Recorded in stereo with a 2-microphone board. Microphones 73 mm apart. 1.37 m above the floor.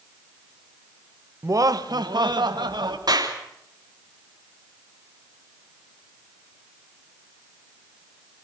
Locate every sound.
1.4 s laughter: 40° right (ahead or behind), 0.9 m; by 3.0 s 80° right, 3 m
3.1 s a clap: 65° right (ahead or behind), 3 m